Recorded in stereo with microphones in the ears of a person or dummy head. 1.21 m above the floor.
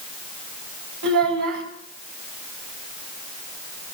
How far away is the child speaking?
About 4 m.